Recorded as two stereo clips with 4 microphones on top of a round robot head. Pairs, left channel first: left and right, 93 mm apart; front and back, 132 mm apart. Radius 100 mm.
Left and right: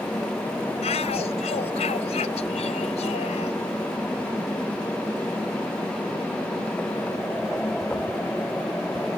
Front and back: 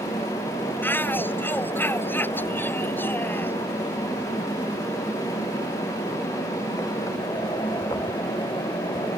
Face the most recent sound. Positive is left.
turn(degrees=70)